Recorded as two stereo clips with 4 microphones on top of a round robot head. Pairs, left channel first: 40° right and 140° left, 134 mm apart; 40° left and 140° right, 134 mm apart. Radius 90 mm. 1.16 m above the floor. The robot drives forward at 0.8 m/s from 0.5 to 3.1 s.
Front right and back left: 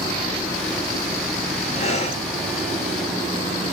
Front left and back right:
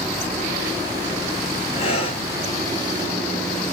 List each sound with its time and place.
1.7 s breathing: 5° right, 1.6 m